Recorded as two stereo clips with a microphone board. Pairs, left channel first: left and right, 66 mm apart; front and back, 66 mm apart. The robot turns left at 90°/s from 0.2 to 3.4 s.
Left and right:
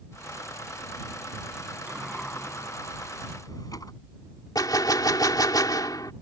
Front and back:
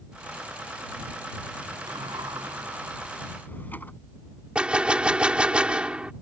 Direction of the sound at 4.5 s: 105° left.